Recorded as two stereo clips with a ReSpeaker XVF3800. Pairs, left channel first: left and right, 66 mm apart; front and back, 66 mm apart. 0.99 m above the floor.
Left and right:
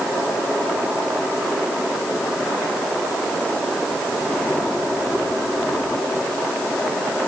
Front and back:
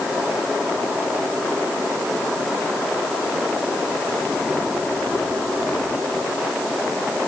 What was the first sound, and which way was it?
Only background noise.